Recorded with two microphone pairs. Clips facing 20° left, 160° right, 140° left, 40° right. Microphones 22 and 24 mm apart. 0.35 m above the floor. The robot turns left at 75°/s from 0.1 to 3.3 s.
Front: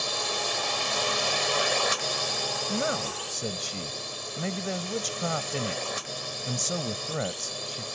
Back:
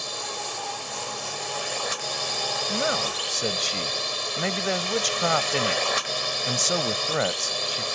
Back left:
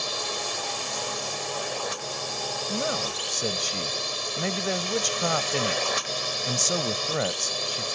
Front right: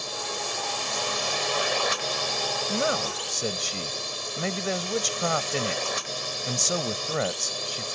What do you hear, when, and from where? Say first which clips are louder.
0.0 s a drone: front 3 dB, back left 2 dB; 85° left; by 8.0 s 155° right
2.7 s a man speaking: back 4 dB, front right 2 dB; 75° right; by 8.0 s 120° right